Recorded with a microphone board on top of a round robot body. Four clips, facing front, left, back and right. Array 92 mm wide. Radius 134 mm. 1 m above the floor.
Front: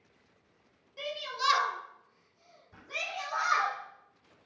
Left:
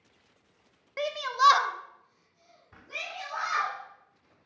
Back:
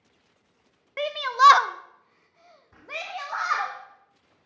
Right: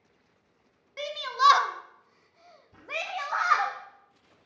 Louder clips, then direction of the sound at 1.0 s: Even, back 16 dB; 150° left.